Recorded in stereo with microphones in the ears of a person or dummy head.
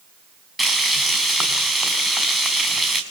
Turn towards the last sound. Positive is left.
turn(degrees=0)  # may be behind; listen again after turning